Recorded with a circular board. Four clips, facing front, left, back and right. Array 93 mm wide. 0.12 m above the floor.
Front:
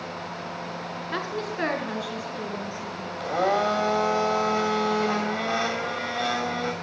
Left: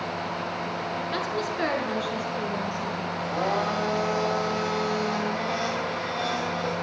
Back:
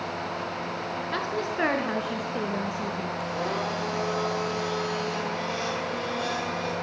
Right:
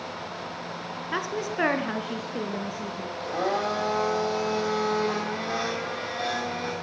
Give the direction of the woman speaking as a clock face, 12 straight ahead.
3 o'clock.